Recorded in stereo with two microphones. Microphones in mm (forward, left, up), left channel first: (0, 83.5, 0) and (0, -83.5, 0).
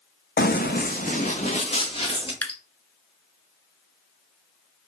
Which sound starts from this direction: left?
Running footsteps, at 0.4 s.